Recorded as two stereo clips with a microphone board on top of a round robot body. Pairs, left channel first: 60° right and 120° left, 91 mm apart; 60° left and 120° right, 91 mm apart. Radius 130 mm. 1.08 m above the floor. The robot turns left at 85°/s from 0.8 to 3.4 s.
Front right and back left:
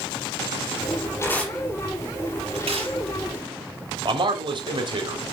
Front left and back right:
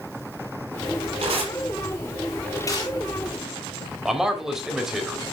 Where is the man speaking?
155° left, 3.5 m.